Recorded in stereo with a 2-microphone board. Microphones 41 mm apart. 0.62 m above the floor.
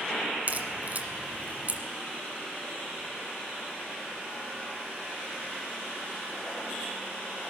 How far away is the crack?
About 1.6 m.